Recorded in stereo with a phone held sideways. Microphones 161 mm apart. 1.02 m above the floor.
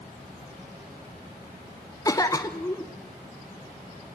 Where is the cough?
20° left (ahead or behind), 0.8 m.